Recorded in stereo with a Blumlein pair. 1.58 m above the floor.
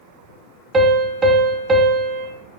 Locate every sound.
0.7 s a piano: 20° right, 0.5 m